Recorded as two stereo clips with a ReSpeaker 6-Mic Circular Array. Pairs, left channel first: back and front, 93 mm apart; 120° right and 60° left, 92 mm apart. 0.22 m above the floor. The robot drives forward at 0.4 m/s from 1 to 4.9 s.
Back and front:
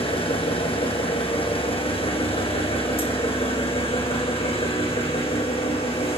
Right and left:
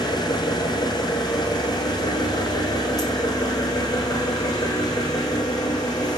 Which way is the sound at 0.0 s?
165° right.